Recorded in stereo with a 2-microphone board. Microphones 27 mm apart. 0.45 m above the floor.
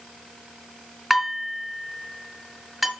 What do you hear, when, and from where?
1.1 s dishes clattering: centre (ahead or behind), 2.5 m